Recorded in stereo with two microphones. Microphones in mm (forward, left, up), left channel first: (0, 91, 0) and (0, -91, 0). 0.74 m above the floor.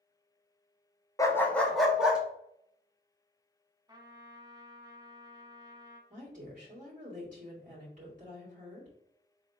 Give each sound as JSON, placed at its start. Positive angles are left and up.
{"t": 1.2, "sound": "a dog barking", "side_deg": 20, "distance_m": 0.6}
{"t": 3.9, "sound": "a trumpet", "side_deg": -20, "distance_m": 1.0}
{"t": 6.1, "sound": "a woman speaking", "side_deg": -40, "distance_m": 2.0}